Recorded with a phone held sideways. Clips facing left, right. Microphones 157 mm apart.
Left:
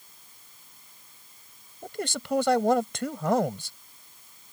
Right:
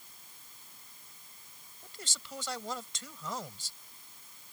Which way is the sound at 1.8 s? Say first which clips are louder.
Left 17 dB; 60° left (ahead or behind).